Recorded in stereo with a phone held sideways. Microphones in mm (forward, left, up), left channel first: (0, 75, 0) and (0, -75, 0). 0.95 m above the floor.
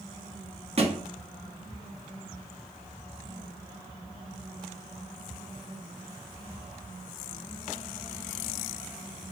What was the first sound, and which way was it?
A thud, 40° right (ahead or behind).